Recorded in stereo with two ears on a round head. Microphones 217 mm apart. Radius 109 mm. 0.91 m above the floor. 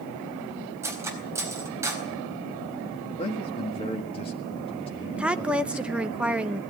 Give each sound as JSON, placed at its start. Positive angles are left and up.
{"t": 0.8, "sound": "cutlery clinking", "side_deg": -10, "distance_m": 4.0}
{"t": 3.2, "sound": "a man speaking", "side_deg": 25, "distance_m": 1.6}
{"t": 5.2, "sound": "a woman speaking", "side_deg": -5, "distance_m": 0.7}